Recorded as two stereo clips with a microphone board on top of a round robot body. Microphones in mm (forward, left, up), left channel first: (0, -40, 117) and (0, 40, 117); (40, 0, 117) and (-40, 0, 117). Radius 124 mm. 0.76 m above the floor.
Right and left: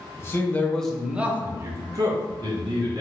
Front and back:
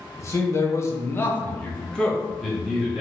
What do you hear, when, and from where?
0.2 s a man speaking: 40° right, 0.9 m; by 3.0 s 95° left, 1.3 m